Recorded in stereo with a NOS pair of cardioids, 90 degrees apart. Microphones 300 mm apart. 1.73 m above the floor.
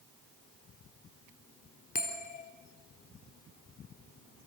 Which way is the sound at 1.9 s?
30° left.